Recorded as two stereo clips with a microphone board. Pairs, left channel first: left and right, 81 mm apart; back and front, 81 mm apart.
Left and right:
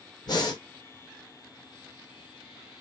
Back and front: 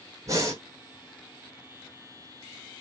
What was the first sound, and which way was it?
Breathing, 55° left.